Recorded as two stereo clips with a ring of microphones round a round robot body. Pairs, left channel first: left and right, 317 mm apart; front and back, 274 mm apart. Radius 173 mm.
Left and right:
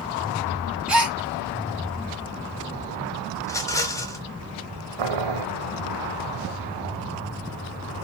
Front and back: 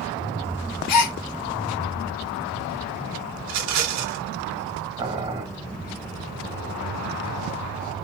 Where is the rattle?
170° left, 0.8 m.